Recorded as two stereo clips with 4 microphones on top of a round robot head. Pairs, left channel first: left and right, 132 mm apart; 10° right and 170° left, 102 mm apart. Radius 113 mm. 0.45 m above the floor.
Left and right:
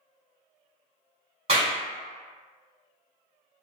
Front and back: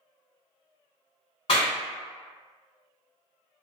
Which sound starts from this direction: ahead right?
A clap, at 1.5 s.